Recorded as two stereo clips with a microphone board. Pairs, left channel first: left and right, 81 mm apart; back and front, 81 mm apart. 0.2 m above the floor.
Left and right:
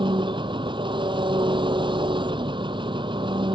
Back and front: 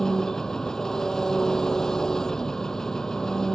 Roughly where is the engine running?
Right.